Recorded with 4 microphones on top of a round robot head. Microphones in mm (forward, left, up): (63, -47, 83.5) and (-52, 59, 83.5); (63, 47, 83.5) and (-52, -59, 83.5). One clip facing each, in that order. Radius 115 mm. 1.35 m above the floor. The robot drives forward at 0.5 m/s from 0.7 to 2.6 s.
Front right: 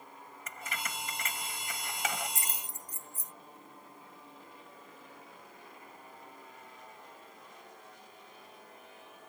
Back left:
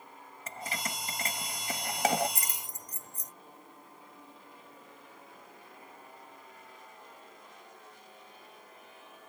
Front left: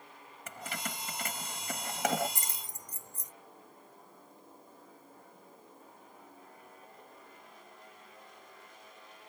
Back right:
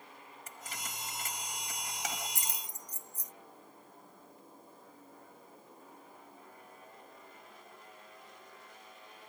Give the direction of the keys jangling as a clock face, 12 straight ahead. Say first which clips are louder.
Back left 3 dB, front left 7 dB; 9 o'clock.